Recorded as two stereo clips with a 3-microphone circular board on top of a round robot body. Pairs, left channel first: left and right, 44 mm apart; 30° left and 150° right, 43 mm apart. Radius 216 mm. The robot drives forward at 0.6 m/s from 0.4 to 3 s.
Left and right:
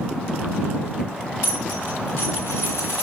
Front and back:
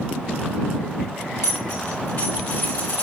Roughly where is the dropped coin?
Ahead left.